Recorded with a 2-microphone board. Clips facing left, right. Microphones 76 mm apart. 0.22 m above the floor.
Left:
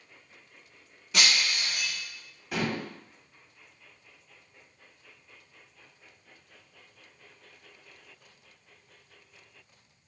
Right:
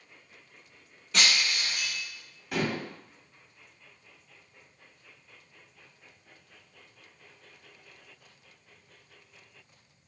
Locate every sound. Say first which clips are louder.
1.1 s breaking glass: even; 5° left (ahead or behind), 1.1 m
2.5 s dishes clattering: right 1 dB; centre (ahead or behind), 0.6 m